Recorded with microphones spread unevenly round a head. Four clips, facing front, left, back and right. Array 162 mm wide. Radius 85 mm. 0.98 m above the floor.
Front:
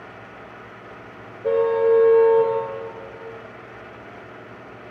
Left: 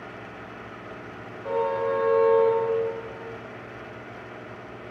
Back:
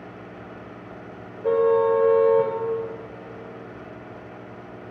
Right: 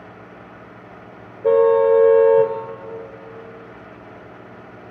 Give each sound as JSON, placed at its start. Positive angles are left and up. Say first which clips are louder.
{"t": 1.4, "sound": "a car horn", "louder": "right 12 dB, front 1 dB", "azimuth_deg": -85, "distance_m": 2.5}